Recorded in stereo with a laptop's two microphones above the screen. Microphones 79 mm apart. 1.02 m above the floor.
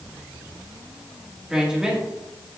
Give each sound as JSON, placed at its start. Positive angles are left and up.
{"t": 1.5, "sound": "a woman speaking", "side_deg": -10, "distance_m": 1.6}